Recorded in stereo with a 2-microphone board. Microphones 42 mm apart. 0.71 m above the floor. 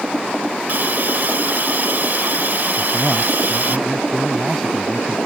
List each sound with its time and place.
0.7 s a hiss: 55° right (ahead or behind)
2.8 s a man speaking: 10° left (ahead or behind)